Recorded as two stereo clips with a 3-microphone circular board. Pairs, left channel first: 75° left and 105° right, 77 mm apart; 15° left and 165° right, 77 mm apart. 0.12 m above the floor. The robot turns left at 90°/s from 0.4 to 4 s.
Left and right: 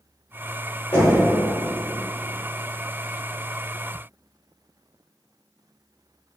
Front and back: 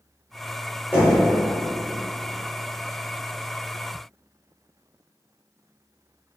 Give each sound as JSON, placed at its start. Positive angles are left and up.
{"t": 0.9, "sound": "knocking", "azimuth_deg": 125, "distance_m": 1.7}